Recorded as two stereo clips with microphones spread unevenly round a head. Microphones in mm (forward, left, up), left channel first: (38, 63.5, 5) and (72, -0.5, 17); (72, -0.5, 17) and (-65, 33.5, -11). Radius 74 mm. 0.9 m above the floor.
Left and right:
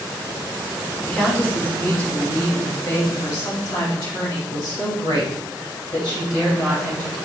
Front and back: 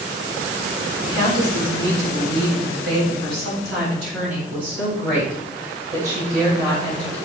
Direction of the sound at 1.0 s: 165° right.